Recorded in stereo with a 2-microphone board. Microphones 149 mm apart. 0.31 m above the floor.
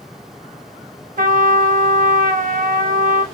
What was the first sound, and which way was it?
A trumpet, 65° right (ahead or behind).